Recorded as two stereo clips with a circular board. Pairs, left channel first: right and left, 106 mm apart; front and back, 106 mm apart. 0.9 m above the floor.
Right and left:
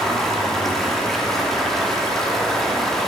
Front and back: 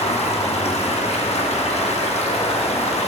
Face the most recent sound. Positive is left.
turn(degrees=-5)